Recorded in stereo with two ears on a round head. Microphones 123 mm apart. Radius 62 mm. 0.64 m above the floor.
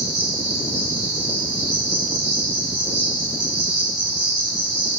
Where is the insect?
45° right (ahead or behind), 2 m.